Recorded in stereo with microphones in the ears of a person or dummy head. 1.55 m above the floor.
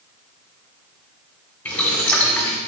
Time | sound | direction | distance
1.6 | boiling | 15° left (ahead or behind) | 2 m